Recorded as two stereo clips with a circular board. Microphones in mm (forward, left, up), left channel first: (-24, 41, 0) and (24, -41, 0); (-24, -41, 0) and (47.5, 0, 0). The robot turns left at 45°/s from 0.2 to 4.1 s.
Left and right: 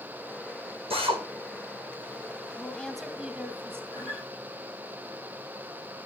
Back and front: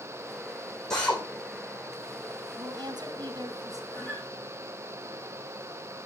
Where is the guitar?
150° left, 7 m; by 4.3 s 140° left, 7 m.